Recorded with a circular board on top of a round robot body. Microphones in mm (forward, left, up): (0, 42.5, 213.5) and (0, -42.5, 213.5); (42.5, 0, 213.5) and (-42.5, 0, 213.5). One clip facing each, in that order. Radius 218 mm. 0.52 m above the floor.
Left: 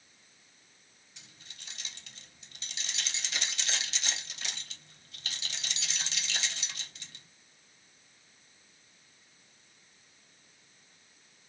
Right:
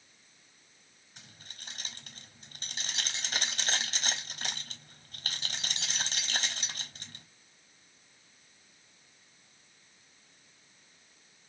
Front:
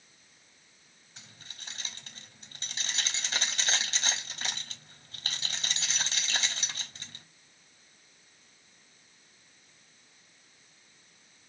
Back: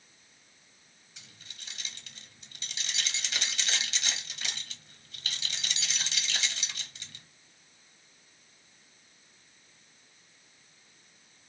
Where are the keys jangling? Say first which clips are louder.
Right 3 dB, front 2 dB; 50° right, 1.3 m.